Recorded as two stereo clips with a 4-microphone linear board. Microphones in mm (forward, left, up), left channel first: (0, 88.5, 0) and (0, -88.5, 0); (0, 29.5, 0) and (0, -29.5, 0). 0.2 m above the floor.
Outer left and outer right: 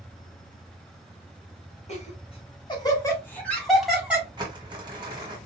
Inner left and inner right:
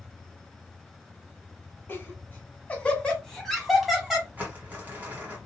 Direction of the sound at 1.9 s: 40° left (ahead or behind).